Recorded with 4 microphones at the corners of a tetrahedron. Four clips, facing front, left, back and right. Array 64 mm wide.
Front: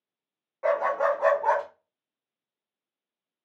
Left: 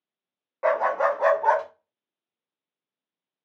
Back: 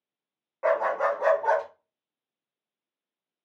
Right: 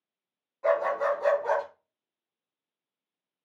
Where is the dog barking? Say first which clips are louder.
Left 3 dB, even; 105° left, 1.3 m; by 1.6 s 70° left, 1.6 m.